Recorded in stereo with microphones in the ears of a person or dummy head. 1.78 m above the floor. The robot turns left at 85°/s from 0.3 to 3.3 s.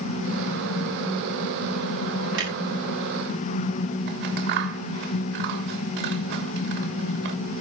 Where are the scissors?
60° right (ahead or behind), 3 m.